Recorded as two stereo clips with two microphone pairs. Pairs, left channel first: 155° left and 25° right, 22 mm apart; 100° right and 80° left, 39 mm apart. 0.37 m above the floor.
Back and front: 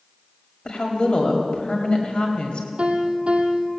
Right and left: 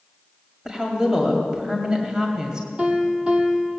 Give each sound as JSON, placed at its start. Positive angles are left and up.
{"t": 0.7, "sound": "a woman speaking", "azimuth_deg": 145, "distance_m": 2.0}
{"t": 2.8, "sound": "a piano", "azimuth_deg": 15, "distance_m": 2.5}